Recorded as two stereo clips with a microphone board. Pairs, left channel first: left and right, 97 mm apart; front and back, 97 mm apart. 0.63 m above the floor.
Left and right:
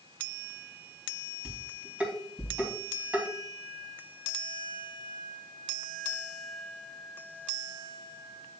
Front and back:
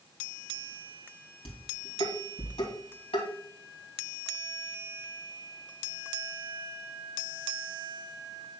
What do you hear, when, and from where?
1.4 s dishes clattering: 10° right, 2.5 m